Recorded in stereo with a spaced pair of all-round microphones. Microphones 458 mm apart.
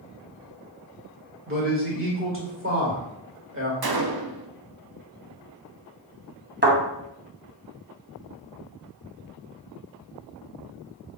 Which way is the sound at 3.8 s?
55° right (ahead or behind).